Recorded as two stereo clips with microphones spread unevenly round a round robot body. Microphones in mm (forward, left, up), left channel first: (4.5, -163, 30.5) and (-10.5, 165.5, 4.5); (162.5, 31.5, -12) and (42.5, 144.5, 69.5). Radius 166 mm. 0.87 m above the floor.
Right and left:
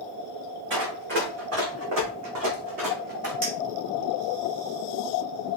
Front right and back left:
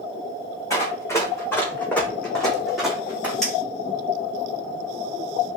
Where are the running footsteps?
35° left, 3 m; by 3.3 s 70° left, 2 m.